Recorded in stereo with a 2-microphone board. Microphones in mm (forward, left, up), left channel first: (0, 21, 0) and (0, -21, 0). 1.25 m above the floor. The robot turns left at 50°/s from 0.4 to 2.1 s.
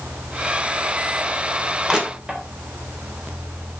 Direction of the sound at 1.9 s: 15° right (ahead or behind).